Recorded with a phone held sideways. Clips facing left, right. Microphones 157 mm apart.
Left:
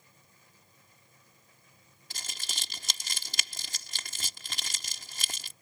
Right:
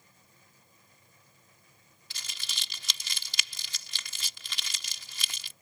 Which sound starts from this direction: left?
Crumpling, at 2.1 s.